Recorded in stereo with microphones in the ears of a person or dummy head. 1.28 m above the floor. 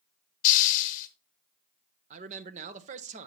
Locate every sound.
0.4 s a hiss: 45° left (ahead or behind), 0.8 m
2.1 s a man speaking: 40° right (ahead or behind), 0.6 m